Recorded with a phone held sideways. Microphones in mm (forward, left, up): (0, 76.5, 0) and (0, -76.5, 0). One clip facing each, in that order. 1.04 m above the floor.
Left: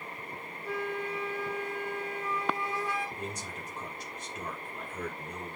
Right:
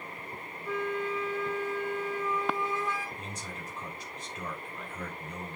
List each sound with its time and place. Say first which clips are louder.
0.6 s a flute: right 2 dB; 70° left (ahead or behind), 4.5 m
3.2 s a man speaking: left 2 dB; 50° left (ahead or behind), 5 m